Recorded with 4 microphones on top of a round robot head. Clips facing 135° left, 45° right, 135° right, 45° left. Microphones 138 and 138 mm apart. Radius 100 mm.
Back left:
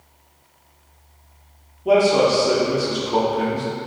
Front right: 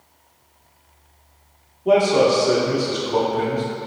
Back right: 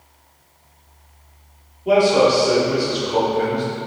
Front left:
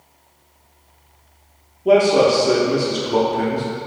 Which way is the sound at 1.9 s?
55° left.